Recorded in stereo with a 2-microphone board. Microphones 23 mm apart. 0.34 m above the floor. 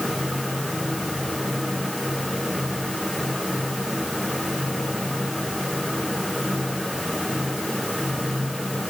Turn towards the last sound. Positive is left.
No sound to turn to.